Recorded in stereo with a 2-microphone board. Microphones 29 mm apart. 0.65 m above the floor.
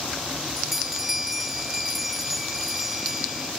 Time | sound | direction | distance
0.6 | a bell | 5° right (ahead or behind) | ?